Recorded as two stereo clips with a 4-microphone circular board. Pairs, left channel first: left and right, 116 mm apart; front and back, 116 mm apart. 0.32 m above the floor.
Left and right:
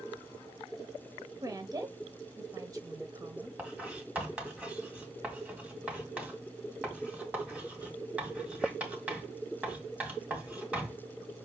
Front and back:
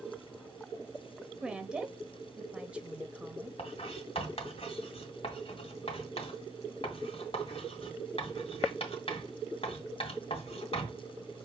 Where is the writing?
15° right, 2.0 m.